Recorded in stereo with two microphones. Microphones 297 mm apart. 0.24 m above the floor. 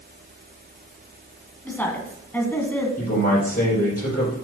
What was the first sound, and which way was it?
A woman speaking, 5° left (ahead or behind).